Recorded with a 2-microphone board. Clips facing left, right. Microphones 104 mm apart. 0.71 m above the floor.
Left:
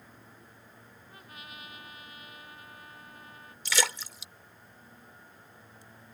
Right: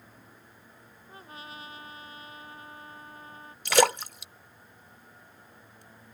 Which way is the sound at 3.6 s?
55° right (ahead or behind).